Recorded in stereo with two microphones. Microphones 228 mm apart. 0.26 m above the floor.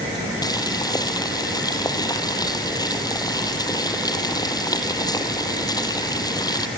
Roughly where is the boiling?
Centre.